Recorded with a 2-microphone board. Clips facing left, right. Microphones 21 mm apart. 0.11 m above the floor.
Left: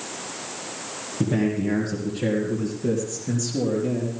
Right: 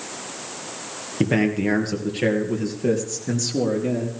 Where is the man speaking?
55° right (ahead or behind), 3 m; by 4.1 s 35° right (ahead or behind), 3 m.